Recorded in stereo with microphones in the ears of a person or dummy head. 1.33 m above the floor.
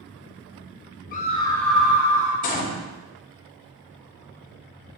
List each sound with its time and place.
1.1 s a scream: 40° left (ahead or behind), 1.1 m; by 2.3 s 20° right (ahead or behind), 1.9 m
2.4 s a gunshot: 40° left (ahead or behind), 1.2 m